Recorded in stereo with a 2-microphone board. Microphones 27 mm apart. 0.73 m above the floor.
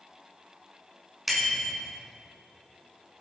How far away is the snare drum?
No snare drum in this recording.